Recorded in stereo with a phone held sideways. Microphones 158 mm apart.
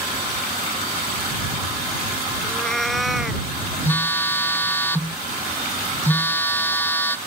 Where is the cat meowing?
5° left (ahead or behind); by 3.5 s 5° right (ahead or behind).